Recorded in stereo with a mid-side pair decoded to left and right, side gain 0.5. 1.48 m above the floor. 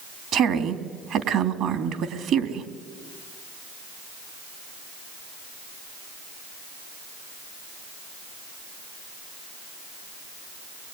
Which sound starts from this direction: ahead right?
A woman speaking, at 0.3 s.